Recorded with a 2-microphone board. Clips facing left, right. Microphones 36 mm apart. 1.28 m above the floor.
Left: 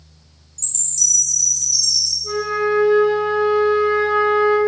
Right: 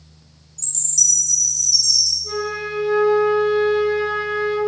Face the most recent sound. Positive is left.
turn(degrees=25)  # may be behind; listen again after turning